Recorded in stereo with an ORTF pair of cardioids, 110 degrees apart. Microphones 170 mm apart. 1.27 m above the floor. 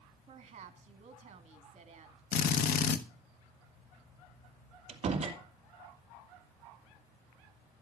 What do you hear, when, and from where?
0.3 s a woman speaking: 40° right, 2 m
2.3 s a drill: 70° left, 1.3 m
4.9 s a door slam: 40° right, 3 m